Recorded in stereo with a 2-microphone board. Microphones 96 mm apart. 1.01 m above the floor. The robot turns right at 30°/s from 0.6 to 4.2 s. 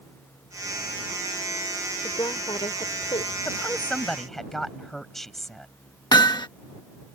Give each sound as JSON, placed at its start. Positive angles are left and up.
{"t": 2.0, "sound": "a woman speaking", "azimuth_deg": 40}
{"t": 3.5, "sound": "a woman speaking", "side_deg": 25}
{"t": 6.1, "sound": "hammering", "side_deg": 45}